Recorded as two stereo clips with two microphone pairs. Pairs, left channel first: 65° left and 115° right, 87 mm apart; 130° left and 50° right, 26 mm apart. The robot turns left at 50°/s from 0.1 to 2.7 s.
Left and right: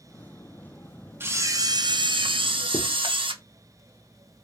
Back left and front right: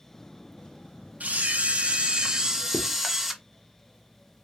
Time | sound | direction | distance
1.2 | a camera shutter | 50° right | 0.7 m
2.7 | writing | 115° left | 1.7 m